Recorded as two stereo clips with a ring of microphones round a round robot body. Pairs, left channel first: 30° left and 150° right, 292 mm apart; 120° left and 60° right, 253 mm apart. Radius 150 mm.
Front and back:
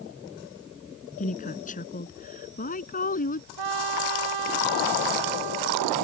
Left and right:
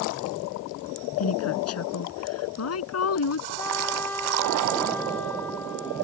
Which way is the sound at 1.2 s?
95° left.